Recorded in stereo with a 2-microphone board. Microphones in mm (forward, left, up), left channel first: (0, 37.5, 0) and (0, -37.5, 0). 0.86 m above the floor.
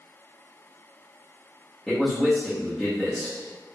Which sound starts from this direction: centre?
A man speaking, at 1.9 s.